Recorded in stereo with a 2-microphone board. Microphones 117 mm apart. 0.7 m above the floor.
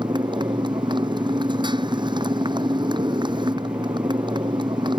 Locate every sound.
0.0 s a motorcycle: 40° right (ahead or behind)